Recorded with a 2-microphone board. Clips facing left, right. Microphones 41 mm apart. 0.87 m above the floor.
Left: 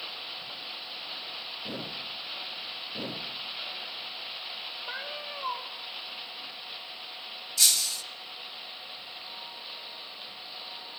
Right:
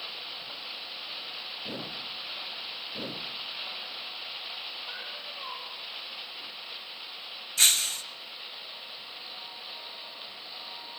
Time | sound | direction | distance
4.9 | a cat meowing | 25° left (ahead or behind) | 2 m
7.6 | breaking glass | 45° right (ahead or behind) | 1.0 m